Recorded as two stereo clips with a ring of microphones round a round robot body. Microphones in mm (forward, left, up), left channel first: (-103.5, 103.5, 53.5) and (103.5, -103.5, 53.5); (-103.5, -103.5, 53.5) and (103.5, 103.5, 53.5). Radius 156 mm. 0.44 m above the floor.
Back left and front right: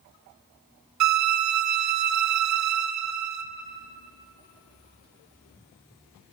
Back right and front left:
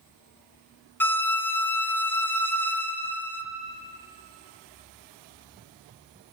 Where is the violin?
55° right, 1.1 m.